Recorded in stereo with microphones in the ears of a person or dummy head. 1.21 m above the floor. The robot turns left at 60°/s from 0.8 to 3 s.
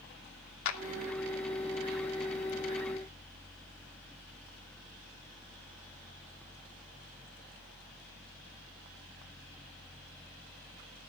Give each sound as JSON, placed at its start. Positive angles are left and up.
{"t": 0.7, "sound": "a clap", "side_deg": 65, "distance_m": 2.5}